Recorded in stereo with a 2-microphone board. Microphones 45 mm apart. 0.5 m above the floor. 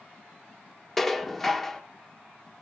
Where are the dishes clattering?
5° left (ahead or behind), 0.7 m.